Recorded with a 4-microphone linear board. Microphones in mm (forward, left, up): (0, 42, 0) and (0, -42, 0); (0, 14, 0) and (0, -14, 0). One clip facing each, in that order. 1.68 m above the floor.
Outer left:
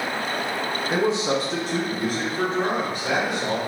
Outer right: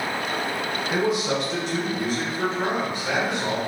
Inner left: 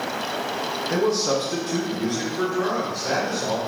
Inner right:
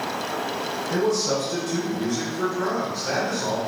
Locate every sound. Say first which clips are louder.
0.9 s a man speaking: outer left 1 dB, inner left 1 dB; 25° left (ahead or behind), 0.6 m; by 3.6 s 50° left (ahead or behind), 1.4 m